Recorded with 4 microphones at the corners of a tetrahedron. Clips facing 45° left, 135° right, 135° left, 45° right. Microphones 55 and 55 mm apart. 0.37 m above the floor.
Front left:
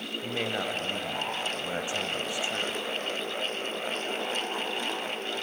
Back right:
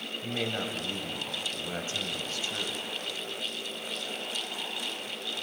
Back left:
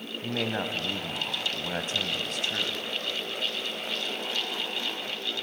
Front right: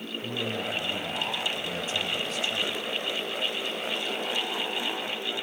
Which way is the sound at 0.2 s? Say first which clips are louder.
Front left 2 dB, back left 2 dB; 115° left.